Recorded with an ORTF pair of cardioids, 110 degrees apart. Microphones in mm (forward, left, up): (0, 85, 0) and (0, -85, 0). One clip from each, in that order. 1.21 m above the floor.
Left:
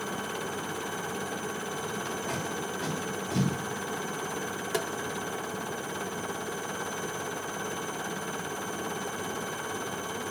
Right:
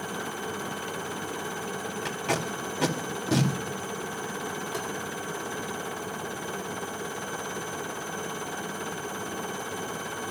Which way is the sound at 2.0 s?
65° right.